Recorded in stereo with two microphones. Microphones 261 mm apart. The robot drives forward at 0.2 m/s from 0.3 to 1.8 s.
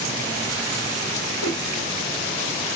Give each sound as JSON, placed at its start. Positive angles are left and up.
{"t": 1.4, "sound": "a whoosh", "side_deg": 50, "distance_m": 1.6}